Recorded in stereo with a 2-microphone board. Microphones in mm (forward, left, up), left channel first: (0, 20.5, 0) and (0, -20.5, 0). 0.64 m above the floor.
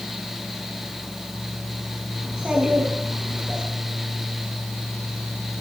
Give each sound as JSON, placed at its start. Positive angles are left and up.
{"t": 2.2, "sound": "a child speaking", "side_deg": -20, "distance_m": 5.0}